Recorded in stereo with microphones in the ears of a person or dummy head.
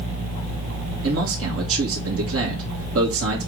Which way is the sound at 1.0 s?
70° right (ahead or behind).